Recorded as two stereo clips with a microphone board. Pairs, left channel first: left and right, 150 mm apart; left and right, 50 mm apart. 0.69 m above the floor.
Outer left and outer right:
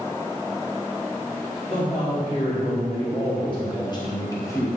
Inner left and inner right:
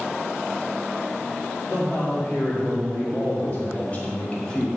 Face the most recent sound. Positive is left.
turn(degrees=15)  # may be behind; listen again after turning